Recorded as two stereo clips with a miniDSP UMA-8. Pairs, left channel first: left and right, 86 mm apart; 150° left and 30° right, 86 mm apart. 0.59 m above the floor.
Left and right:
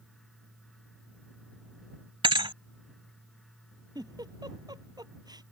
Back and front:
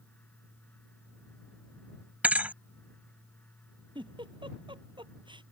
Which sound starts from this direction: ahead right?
A giggle, at 4.0 s.